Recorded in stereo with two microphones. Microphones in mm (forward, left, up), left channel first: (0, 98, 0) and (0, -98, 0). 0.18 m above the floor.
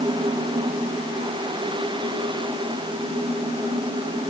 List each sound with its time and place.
Only background noise.